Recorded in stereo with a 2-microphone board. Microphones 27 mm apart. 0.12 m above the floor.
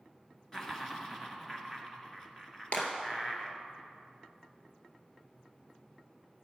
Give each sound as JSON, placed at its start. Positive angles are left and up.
{"t": 0.5, "sound": "laughter", "side_deg": 15, "distance_m": 1.8}
{"t": 2.7, "sound": "a clap", "side_deg": 50, "distance_m": 1.8}